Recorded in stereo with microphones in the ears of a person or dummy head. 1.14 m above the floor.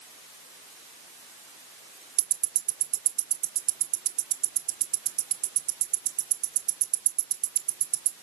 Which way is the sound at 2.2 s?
55° right (ahead or behind).